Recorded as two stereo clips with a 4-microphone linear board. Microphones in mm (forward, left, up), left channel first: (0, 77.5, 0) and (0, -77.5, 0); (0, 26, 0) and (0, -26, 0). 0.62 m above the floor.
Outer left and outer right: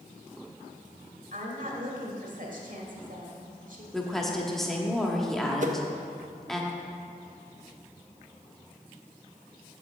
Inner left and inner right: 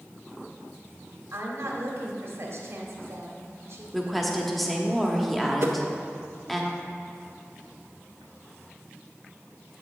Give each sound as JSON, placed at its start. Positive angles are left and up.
{"t": 1.3, "sound": "a woman speaking", "side_deg": -60, "distance_m": 1.7}
{"t": 3.9, "sound": "a woman speaking", "side_deg": 0, "distance_m": 1.1}
{"t": 5.6, "sound": "a whoosh", "side_deg": -55, "distance_m": 0.6}